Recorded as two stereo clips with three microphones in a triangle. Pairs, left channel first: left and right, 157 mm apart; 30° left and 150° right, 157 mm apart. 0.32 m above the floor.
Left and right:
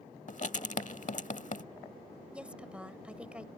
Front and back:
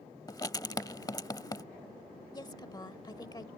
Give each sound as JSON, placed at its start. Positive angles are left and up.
{"t": 0.3, "sound": "writing", "azimuth_deg": 90}
{"t": 2.3, "sound": "a woman speaking", "azimuth_deg": -15}